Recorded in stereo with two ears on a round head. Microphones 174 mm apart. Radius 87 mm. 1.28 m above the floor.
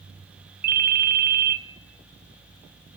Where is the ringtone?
50° right (ahead or behind), 0.7 m.